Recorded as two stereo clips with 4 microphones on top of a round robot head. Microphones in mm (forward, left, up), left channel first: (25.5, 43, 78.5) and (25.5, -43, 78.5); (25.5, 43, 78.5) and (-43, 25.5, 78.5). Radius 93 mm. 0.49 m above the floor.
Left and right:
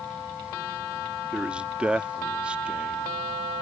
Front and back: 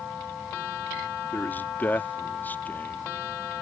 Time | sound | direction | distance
1.3 | a man speaking | 20° right | ?